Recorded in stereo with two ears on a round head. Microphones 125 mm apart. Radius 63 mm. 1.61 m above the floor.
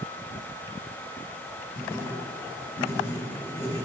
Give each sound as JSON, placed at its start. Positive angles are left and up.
{"t": 1.8, "sound": "writing", "side_deg": 20, "distance_m": 1.2}